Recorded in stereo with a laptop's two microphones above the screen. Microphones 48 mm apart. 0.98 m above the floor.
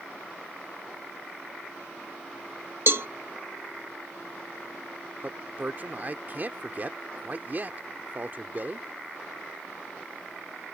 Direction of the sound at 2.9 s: 60° right (ahead or behind).